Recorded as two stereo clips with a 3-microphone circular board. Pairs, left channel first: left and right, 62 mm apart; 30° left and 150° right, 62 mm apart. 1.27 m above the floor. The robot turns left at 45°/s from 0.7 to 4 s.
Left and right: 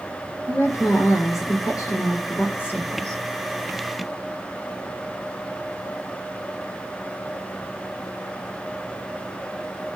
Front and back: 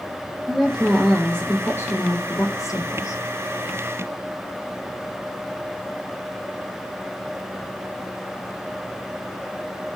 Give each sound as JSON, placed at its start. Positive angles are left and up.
{"t": 0.5, "sound": "a woman speaking", "azimuth_deg": 120, "distance_m": 5.0}